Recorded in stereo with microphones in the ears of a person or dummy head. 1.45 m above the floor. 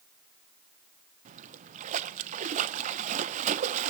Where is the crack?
I don't hear a crack.